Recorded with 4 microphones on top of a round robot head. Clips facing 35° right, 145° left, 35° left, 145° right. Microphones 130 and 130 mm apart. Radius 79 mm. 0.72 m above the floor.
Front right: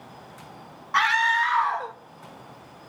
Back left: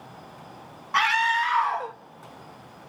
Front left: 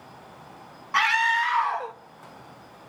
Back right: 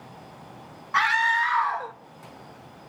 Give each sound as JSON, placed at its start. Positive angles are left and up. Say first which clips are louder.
{"t": 0.9, "sound": "a scream", "louder": "even, even", "azimuth_deg": 80, "distance_m": 0.8}